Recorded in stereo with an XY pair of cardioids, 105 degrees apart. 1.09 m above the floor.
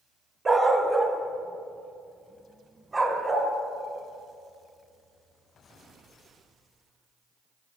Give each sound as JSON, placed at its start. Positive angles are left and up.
{"t": 0.5, "sound": "a dog barking", "azimuth_deg": -30, "distance_m": 1.8}